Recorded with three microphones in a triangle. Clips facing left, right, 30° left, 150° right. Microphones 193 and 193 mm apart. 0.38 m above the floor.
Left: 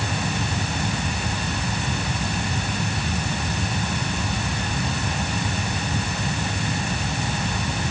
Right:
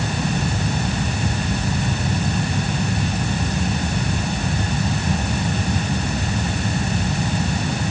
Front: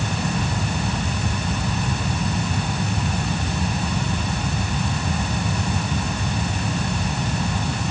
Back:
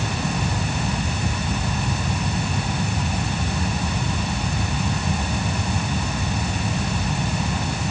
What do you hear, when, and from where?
Only background noise.